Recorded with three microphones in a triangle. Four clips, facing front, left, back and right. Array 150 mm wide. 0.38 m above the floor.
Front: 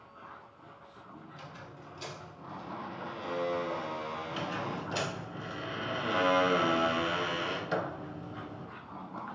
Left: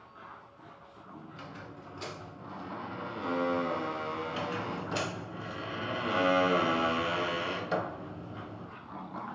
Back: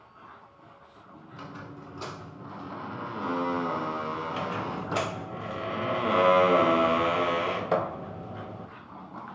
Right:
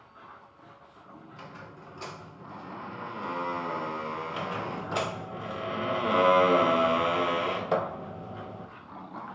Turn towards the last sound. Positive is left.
turn(degrees=-145)